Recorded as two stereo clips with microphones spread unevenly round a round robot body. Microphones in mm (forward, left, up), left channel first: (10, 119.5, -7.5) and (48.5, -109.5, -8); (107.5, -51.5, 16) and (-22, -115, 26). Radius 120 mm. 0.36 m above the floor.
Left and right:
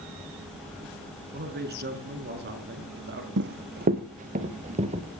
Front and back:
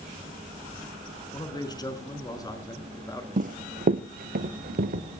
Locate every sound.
1.3 s a man speaking: 35° right, 5 m; by 3.3 s 40° right, 5.5 m
3.4 s running footsteps: 125° right, 1.3 m; by 5.0 s 145° right, 3 m